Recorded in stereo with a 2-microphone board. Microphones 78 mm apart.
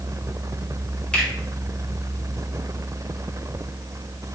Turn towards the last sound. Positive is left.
turn(degrees=15)  # may be behind; listen again after turning